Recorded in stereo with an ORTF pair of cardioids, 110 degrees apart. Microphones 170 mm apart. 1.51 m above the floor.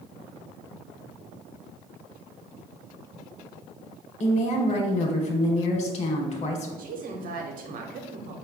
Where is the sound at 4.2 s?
40° left, 1.1 m.